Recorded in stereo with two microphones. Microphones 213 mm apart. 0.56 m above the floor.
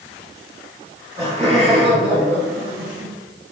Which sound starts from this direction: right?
Laughter, at 1.2 s.